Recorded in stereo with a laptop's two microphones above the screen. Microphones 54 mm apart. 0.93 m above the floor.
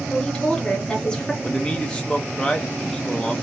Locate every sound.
0.1 s a woman speaking: 15° left (ahead or behind), 0.7 m
1.4 s a man speaking: 15° left (ahead or behind), 0.6 m